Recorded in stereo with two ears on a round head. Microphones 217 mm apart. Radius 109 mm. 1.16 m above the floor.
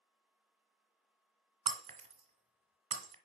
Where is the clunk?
I don't hear a clunk.